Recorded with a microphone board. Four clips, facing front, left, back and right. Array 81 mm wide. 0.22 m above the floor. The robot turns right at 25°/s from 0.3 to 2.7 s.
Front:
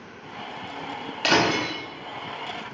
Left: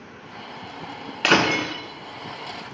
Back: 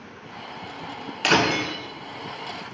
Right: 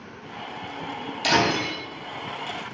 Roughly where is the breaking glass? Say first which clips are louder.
Left 2 dB, back 1 dB; left.